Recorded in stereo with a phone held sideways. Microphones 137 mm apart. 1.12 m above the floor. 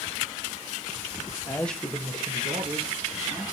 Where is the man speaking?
25° left (ahead or behind), 0.6 m; by 3.4 s 75° right (ahead or behind), 1.6 m.